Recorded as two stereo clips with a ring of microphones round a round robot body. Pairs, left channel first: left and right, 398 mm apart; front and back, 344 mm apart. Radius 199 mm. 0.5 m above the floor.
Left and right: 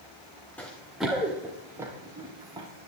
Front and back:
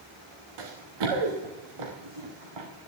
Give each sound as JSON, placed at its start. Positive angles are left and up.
{"t": 0.6, "sound": "running footsteps", "azimuth_deg": 175, "distance_m": 2.5}